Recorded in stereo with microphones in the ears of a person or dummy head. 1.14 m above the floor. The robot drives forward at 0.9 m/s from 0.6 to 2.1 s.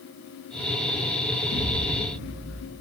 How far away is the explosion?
About 1.3 m.